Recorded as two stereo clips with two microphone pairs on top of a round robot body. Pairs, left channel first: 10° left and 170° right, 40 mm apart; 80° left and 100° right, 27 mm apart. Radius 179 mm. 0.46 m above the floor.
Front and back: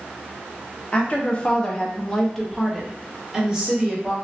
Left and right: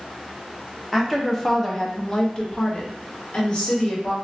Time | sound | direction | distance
0.9 | a woman speaking | 10° right | 1.1 m